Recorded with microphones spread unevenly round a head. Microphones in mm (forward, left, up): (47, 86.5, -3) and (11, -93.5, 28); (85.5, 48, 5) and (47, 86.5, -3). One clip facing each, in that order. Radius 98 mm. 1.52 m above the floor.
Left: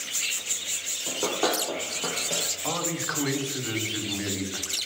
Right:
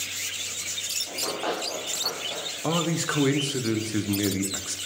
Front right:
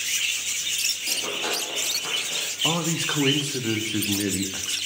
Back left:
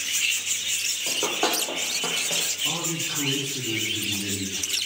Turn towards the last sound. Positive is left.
turn(degrees=-60)